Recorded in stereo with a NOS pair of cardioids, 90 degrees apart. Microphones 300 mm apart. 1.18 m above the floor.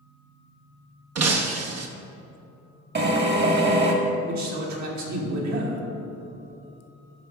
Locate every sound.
1.1 s breaking glass: 55° right, 1.1 m
3.0 s a drill: 35° right, 1.5 m
4.3 s a man speaking: 65° right, 2.5 m